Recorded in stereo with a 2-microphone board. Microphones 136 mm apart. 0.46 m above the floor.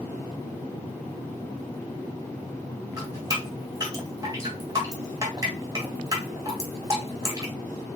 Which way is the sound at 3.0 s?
25° right (ahead or behind).